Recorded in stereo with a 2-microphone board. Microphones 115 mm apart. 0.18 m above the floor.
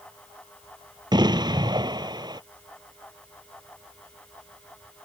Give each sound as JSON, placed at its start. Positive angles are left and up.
{"t": 1.1, "sound": "an explosion", "side_deg": -40}